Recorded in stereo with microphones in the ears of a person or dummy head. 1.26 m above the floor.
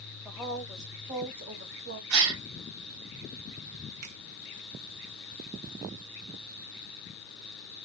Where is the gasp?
65° right (ahead or behind), 1.3 m.